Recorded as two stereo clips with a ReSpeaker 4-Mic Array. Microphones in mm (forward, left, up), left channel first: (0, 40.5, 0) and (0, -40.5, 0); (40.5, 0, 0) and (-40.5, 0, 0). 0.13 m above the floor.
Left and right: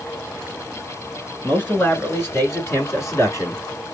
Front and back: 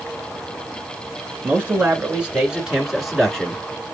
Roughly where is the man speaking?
Behind left.